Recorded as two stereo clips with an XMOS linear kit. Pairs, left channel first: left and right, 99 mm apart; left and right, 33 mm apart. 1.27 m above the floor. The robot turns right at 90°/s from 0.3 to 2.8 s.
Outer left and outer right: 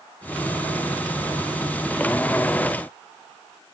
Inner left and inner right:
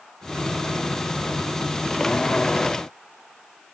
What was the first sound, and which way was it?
Only background noise.